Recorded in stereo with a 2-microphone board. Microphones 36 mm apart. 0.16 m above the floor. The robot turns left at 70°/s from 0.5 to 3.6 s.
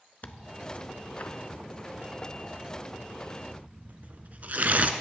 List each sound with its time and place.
0.2 s tearing paper: 50° left (ahead or behind), 0.5 m; by 4.9 s 55° right (ahead or behind), 0.5 m